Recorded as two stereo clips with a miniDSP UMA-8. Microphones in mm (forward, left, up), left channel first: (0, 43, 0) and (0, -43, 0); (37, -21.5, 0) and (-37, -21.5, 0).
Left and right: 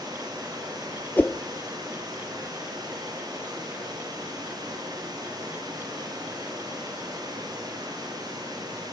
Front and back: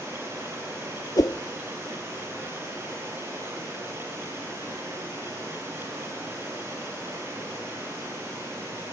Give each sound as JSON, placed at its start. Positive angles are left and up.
{"t": 0.0, "sound": "running water", "azimuth_deg": -125, "distance_m": 9.5}
{"t": 1.2, "sound": "a whoosh", "azimuth_deg": 25, "distance_m": 0.6}